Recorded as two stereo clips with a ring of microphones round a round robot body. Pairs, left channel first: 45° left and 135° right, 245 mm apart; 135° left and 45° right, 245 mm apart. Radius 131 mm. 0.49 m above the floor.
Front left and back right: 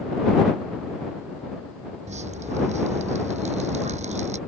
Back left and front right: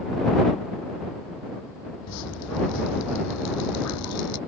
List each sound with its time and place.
2.1 s dripping: 160° left